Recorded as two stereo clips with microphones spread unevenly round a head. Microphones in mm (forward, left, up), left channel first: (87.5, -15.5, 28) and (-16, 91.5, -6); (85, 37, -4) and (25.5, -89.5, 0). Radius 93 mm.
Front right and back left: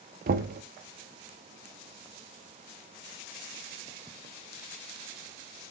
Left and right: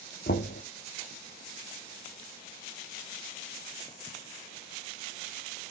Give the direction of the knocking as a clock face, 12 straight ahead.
8 o'clock.